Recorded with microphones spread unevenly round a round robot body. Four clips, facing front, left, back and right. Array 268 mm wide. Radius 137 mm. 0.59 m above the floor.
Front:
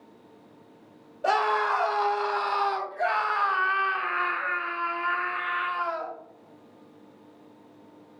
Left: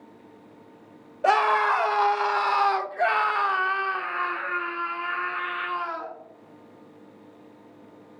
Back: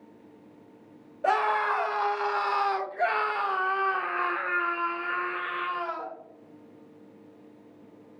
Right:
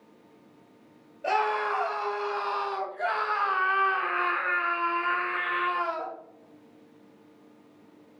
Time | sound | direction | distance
1.2 | a scream | 75° left | 3 m